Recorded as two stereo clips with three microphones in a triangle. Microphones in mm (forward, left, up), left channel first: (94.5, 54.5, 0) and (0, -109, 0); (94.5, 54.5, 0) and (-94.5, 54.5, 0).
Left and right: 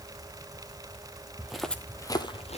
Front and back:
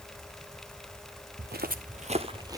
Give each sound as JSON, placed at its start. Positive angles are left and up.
{"t": 1.4, "sound": "footsteps", "azimuth_deg": 155, "distance_m": 0.8}